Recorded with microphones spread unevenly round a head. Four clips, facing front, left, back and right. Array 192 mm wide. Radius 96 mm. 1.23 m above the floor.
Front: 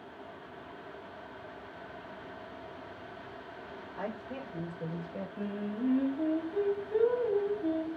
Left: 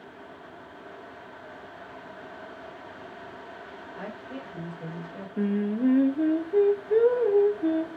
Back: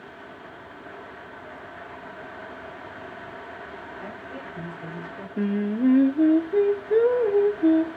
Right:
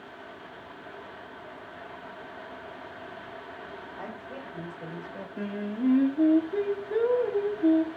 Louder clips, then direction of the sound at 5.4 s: Left 6 dB, back 12 dB; 165° left.